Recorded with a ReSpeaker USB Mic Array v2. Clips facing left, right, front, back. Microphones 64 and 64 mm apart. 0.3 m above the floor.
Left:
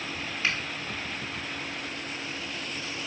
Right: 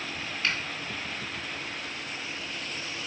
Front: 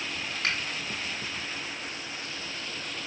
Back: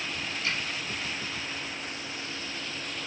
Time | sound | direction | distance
0.4 | a finger snap | 10° left | 3 m